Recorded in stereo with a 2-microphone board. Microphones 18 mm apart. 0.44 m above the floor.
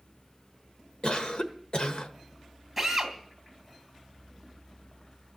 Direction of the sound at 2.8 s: 5° right (ahead or behind).